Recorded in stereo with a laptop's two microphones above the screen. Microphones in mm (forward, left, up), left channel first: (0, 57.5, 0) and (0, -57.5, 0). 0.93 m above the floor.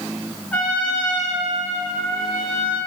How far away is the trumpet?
About 3.5 m.